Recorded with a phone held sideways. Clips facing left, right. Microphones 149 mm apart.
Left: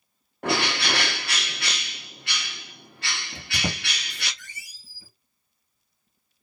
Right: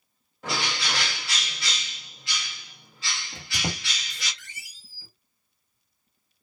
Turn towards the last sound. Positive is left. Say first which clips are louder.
# left 2 dB
turn(degrees=30)  # may be behind; listen again after turning